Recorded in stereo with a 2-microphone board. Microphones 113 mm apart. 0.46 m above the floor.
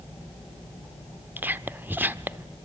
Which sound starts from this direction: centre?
Whispering, at 1.4 s.